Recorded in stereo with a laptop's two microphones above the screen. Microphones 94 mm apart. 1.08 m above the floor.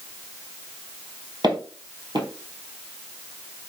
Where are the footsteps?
50° right (ahead or behind), 1.5 m.